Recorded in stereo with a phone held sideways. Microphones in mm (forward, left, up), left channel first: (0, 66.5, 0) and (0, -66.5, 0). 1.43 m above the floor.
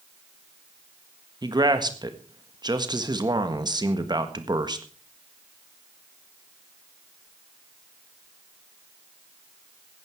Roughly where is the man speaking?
Right.